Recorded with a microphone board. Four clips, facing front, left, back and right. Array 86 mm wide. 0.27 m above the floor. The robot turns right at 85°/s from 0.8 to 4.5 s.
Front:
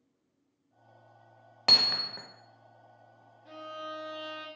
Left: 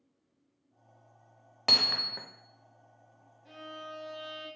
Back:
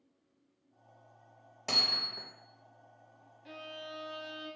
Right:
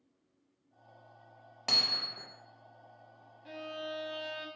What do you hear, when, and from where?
1.7 s hammering: 25° left, 0.5 m; by 2.3 s 75° left, 0.5 m
3.5 s a violin: 140° right, 1.0 m; by 4.5 s 50° right, 1.0 m